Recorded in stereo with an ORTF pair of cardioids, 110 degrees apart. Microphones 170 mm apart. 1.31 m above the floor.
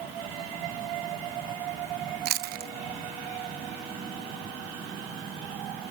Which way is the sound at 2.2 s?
65° right.